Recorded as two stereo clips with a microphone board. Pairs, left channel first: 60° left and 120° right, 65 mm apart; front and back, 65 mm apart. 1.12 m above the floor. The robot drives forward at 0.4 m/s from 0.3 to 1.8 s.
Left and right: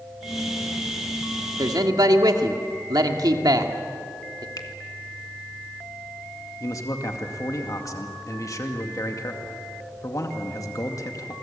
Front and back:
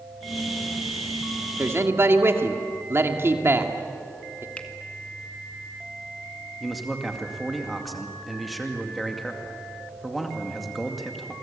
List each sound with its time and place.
1.6 s a man speaking: 125° right, 2 m; by 4.5 s 130° right, 2 m
4.6 s a finger snap: 70° left, 2.0 m
6.6 s a man speaking: 90° left, 2 m